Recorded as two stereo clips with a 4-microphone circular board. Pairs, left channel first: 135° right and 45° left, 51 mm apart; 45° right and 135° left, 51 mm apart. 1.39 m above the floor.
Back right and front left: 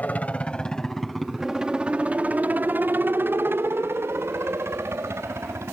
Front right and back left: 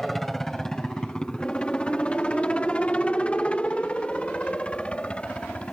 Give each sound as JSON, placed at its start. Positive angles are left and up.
{"t": 0.0, "sound": "a helicopter", "azimuth_deg": -130}